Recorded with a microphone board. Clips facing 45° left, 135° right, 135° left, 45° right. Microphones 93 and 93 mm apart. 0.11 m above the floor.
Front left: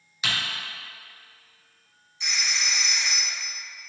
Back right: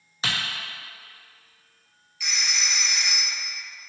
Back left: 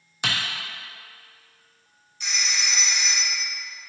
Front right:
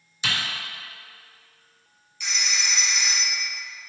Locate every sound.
0.2 s typing on a keyboard: 165° left, 0.8 m
2.2 s a phone ringing: 95° left, 1.4 m